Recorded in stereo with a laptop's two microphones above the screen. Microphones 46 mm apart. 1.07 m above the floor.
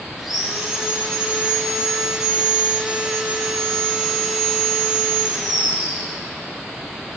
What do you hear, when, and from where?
0.2 s sawing: 5° right (ahead or behind), 2.5 m